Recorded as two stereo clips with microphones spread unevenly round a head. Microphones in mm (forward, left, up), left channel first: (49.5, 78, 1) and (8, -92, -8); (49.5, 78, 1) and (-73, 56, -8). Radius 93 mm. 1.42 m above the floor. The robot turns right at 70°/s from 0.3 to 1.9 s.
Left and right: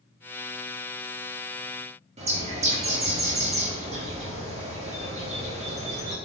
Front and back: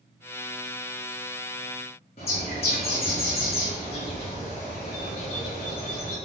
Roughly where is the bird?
Ahead right.